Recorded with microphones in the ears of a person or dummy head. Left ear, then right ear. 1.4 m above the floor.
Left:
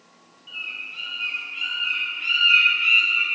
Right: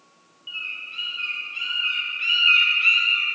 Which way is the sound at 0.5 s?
20° right (ahead or behind).